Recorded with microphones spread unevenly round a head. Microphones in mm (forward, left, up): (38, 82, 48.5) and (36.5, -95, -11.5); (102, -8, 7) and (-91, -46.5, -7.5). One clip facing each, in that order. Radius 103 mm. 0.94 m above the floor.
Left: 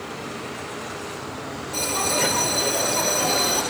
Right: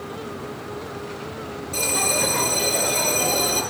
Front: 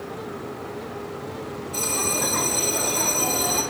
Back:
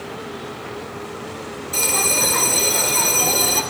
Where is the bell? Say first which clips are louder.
Even, back 4 dB; straight behind, 1.2 m.